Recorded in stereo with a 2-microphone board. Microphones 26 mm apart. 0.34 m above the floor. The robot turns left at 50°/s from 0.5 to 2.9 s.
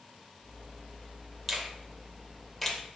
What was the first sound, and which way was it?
A finger snap, 5° right (ahead or behind).